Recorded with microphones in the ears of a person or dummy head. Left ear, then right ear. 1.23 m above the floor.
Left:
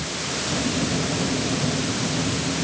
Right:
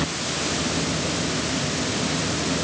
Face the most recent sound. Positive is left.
No sound to turn to.